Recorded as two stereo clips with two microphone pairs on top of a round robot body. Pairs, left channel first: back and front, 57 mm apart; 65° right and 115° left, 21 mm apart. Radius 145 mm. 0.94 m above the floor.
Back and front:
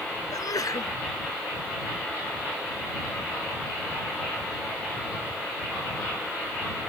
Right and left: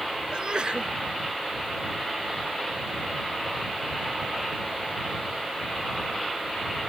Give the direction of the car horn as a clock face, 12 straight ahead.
No car horn in this recording.